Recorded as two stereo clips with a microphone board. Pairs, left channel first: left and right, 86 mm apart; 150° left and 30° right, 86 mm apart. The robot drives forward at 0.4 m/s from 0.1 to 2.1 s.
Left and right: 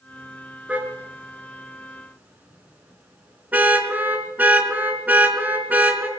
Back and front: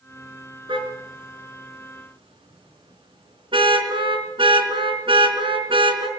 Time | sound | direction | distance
0.7 | a car horn | 15° right | 4 m